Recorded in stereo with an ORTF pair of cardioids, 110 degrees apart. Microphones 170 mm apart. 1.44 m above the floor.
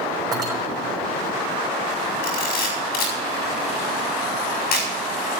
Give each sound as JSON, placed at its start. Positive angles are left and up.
{"t": 0.3, "sound": "cutlery clinking", "azimuth_deg": -20, "distance_m": 5.0}
{"t": 2.2, "sound": "a camera shutter", "azimuth_deg": 70, "distance_m": 7.0}